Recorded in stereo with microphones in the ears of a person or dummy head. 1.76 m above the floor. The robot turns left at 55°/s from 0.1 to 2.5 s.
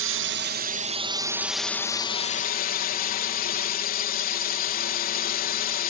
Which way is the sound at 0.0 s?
100° right.